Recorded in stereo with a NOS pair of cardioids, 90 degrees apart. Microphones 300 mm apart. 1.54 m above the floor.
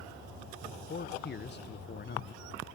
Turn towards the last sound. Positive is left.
turn(degrees=35)